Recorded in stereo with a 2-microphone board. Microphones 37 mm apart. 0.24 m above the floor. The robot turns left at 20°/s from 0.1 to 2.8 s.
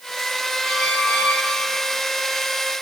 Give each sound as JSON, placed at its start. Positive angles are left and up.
{"t": 0.6, "sound": "a squeak", "side_deg": 60, "distance_m": 3.0}